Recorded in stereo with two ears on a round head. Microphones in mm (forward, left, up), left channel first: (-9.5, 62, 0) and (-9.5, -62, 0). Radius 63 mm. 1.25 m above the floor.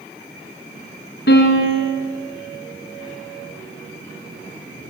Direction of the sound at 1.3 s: 80° left.